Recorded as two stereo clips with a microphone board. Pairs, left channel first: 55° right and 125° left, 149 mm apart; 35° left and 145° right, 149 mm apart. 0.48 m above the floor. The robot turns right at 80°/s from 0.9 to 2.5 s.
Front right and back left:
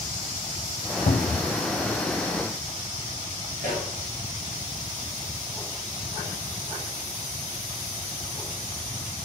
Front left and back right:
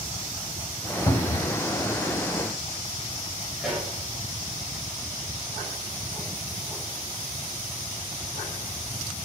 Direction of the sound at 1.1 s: 30° right.